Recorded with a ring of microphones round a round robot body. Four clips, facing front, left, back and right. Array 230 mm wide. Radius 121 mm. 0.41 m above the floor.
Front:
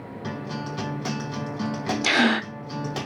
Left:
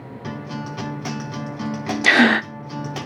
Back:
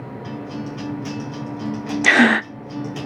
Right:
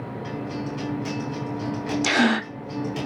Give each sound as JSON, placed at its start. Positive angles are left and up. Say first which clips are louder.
{"t": 0.2, "sound": "a guitar", "louder": "left 1 dB, back 1 dB", "azimuth_deg": 50, "distance_m": 4.5}
{"t": 2.0, "sound": "a gasp", "louder": "left 6 dB, back 7 dB", "azimuth_deg": 145, "distance_m": 0.6}